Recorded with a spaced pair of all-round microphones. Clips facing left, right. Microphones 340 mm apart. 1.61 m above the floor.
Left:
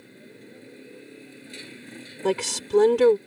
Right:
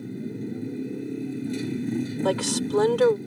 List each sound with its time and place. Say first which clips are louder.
0.0 s a motorcycle: right 15 dB; 55° right (ahead or behind)
2.2 s a woman speaking: left 3 dB; 35° left (ahead or behind)